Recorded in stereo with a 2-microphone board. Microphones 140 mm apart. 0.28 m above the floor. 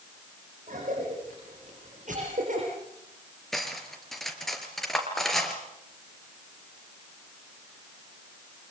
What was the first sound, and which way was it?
A cough, 65° right (ahead or behind).